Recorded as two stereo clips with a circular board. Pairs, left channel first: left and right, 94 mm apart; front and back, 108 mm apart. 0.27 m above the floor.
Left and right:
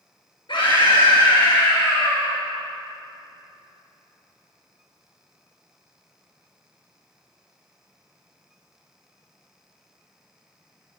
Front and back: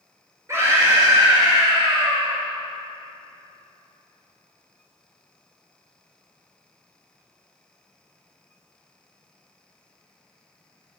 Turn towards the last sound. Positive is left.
turn(degrees=135)